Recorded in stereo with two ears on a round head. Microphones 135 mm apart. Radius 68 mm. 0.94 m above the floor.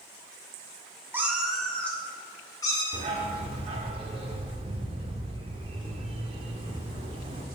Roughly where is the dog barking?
Right.